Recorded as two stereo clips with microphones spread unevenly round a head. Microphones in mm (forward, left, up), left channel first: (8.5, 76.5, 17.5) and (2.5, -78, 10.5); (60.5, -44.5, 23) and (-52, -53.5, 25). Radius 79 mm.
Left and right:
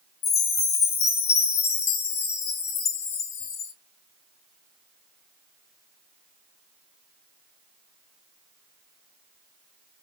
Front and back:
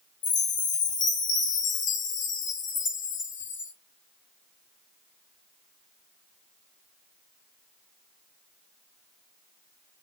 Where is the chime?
35° left, 0.6 m.